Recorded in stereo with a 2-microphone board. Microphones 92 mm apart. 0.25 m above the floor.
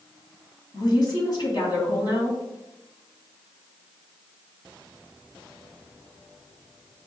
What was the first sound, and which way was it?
A woman speaking, 50° left (ahead or behind).